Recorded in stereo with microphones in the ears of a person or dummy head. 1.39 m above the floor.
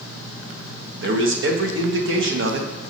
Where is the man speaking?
70° right (ahead or behind), 1.5 m.